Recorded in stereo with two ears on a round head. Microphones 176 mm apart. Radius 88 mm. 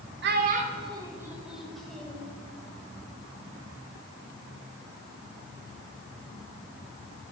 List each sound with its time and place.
0.2 s a child speaking: 60° right (ahead or behind), 1.4 m; by 2.3 s 10° left (ahead or behind), 3.5 m